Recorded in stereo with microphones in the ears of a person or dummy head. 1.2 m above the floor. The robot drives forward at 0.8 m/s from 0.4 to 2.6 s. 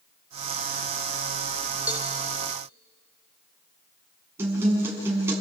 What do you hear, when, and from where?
1.9 s a cowbell: 10° right (ahead or behind), 1.3 m; by 2.1 s 5° right (ahead or behind), 1.5 m
4.4 s a guitar: 15° right (ahead or behind), 7 m